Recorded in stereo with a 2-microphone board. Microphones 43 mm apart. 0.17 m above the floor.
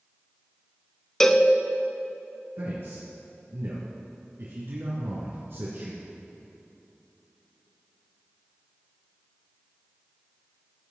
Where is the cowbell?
10° left (ahead or behind), 0.5 m.